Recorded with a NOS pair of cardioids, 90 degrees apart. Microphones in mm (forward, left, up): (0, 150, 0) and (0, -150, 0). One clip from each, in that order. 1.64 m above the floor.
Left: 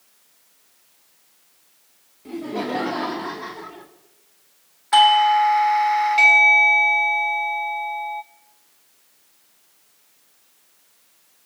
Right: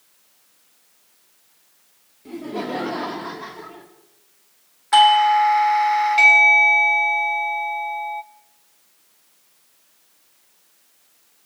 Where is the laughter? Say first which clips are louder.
Left 1 dB; 5° left, 4 m.